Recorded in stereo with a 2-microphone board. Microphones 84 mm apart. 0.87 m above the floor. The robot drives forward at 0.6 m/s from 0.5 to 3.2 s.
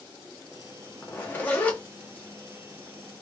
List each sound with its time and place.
1.0 s a zipper: 25° left (ahead or behind), 0.9 m; by 1.8 s 15° left (ahead or behind), 1.2 m